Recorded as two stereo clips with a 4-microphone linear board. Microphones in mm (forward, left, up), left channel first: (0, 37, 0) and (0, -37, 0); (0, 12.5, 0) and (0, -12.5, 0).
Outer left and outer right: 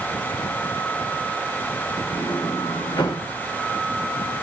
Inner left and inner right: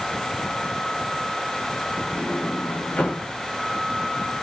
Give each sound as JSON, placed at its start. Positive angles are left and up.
{"t": 2.1, "sound": "a sliding door", "side_deg": 70, "distance_m": 6.5}